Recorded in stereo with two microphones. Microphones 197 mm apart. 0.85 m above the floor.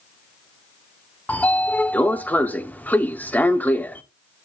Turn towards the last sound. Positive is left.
turn(degrees=10)  # may be behind; listen again after turning